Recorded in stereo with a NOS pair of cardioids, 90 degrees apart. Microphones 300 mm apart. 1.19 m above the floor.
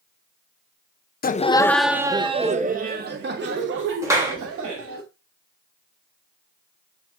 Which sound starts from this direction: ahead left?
Laughter, at 1.2 s.